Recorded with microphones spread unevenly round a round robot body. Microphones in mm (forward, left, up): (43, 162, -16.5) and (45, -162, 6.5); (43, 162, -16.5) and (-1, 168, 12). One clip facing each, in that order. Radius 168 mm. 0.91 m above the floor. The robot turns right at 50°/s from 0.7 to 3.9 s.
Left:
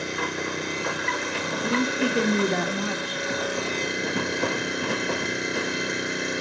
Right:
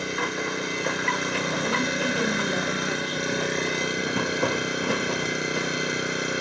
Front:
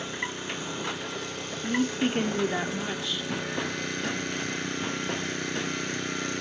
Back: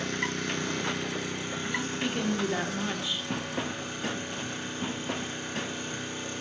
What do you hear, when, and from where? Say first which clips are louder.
0.0 s an engine running: right 1 dB, back 2 dB; 165° right, 6 m; by 6.4 s 5° right, 6 m
1.5 s a woman speaking: left 5 dB, front 7 dB; 15° left, 2 m; by 3.2 s 100° left, 2 m